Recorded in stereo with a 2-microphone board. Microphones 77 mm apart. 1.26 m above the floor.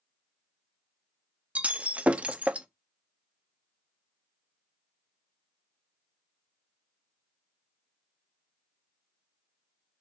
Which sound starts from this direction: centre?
Breaking glass, at 1.6 s.